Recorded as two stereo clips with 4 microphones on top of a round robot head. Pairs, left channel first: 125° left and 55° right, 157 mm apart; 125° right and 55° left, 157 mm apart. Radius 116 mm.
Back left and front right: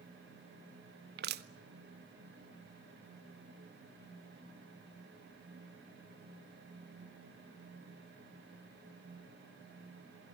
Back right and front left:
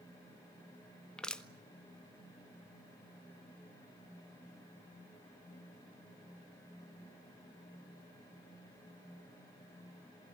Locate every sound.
1.2 s crushing: 40° right, 1.1 m